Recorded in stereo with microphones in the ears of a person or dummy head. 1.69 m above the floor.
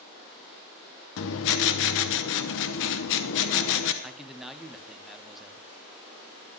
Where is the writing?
65° left (ahead or behind), 1.1 m.